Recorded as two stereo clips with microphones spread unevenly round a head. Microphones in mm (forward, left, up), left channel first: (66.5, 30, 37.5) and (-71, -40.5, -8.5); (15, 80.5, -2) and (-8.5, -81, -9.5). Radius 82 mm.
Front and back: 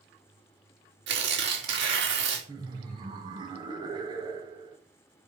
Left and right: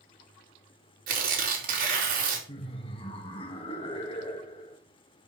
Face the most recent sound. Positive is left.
turn(degrees=140)